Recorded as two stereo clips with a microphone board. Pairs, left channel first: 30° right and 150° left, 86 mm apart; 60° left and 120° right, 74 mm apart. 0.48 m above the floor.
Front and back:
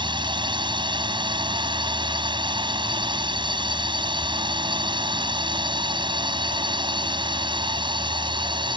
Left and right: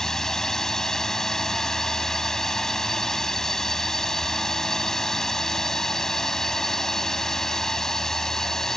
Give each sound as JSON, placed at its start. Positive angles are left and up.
{"t": 0.0, "sound": "a drone", "azimuth_deg": 145}